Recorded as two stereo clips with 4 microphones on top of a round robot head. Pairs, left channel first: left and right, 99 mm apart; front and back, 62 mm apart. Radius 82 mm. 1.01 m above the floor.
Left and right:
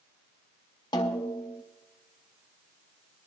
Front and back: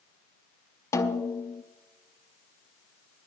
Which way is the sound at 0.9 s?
35° left.